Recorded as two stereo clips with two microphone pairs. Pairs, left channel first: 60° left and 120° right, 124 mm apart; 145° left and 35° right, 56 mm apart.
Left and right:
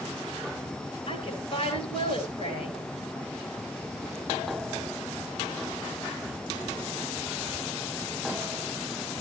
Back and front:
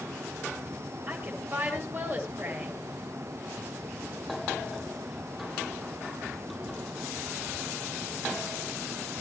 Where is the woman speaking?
20° left, 8.5 m.